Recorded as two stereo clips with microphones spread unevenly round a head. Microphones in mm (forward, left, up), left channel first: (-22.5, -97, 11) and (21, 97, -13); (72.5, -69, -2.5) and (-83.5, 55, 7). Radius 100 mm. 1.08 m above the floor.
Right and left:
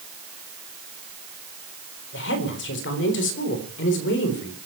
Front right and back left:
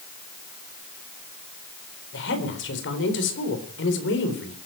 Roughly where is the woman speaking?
Right.